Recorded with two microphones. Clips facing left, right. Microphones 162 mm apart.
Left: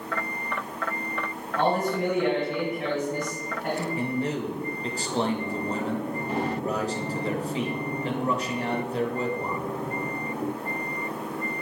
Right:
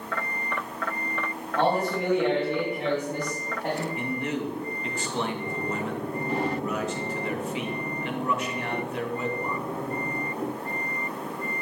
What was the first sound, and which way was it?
A man speaking, 30° right (ahead or behind).